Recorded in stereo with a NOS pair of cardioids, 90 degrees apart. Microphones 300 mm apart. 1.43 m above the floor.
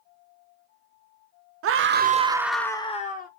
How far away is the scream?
About 0.6 m.